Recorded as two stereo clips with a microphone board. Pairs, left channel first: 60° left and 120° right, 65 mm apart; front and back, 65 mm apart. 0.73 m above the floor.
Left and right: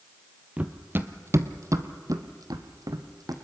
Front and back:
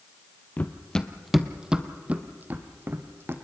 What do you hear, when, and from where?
0.6 s running footsteps: 60° right, 1.0 m; by 3.3 s 130° right, 1.9 m